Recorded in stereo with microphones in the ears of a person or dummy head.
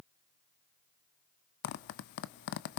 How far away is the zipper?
About 0.6 m.